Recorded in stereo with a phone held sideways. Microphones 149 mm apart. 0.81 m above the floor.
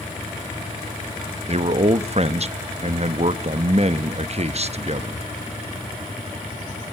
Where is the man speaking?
45° right (ahead or behind), 0.7 m.